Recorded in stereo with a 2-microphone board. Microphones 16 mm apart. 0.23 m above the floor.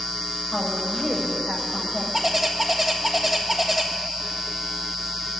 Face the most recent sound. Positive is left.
turn(degrees=-15)  # may be behind; listen again after turning